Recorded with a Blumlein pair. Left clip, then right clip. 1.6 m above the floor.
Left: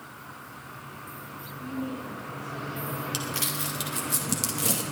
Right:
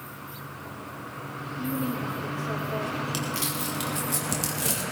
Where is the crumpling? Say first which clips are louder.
Right 1 dB; 5° left, 2 m.